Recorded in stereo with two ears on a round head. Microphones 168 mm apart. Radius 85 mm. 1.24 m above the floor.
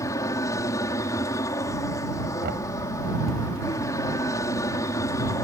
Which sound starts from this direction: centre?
An aircraft, at 0.0 s.